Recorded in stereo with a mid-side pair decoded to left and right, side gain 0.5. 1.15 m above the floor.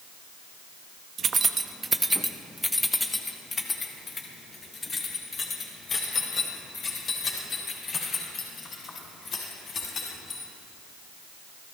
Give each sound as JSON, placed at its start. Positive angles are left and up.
{"t": 1.2, "sound": "keys jangling", "azimuth_deg": -50, "distance_m": 0.8}